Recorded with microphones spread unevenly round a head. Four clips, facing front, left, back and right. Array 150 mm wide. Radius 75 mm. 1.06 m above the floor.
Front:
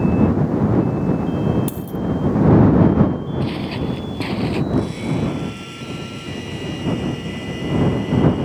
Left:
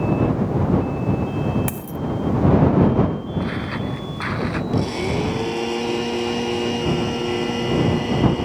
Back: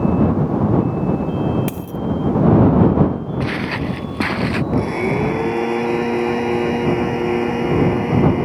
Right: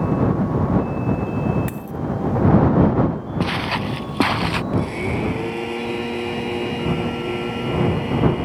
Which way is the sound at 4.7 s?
170° left.